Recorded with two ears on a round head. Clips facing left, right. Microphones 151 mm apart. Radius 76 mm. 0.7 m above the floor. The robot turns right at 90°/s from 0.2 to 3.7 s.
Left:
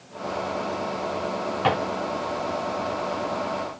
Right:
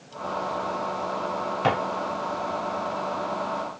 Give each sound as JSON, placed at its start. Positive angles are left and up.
{"t": 1.6, "sound": "a drawer", "side_deg": -10, "distance_m": 1.7}